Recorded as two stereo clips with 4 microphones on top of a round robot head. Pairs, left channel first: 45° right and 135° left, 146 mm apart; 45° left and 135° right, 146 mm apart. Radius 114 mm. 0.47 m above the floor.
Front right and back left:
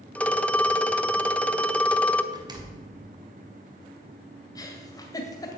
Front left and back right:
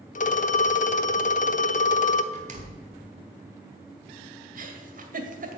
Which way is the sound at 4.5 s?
115° right.